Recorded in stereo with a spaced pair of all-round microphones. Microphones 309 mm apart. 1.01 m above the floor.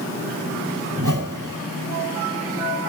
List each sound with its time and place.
1.0 s a whoosh: 70° right (ahead or behind), 5.5 m